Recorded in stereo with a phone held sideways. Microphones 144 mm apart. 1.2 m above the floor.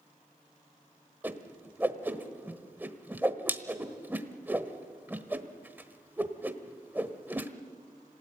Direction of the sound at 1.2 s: 15° right (ahead or behind).